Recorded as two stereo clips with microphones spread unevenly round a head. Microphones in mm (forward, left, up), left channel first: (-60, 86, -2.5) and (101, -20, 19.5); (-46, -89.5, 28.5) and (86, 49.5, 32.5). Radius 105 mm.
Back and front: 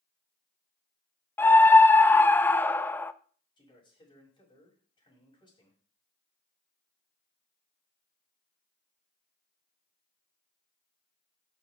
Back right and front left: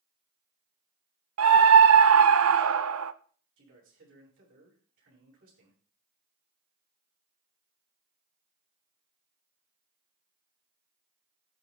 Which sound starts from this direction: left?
A man speaking, at 3.6 s.